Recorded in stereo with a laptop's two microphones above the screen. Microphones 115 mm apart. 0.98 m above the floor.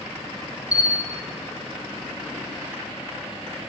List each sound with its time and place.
0.7 s a bell: 30° left (ahead or behind), 1.6 m